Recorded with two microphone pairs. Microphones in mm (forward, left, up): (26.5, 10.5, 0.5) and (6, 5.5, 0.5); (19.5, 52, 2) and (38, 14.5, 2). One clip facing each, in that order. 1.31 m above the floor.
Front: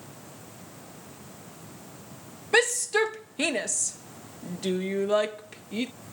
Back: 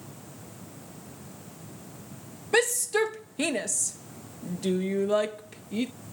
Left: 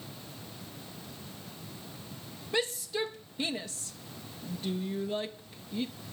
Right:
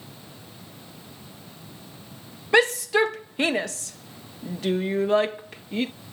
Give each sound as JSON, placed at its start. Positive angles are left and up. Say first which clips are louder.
{"t": 2.5, "sound": "a shout", "louder": "front 1 dB, right 13 dB", "azimuth_deg": -60}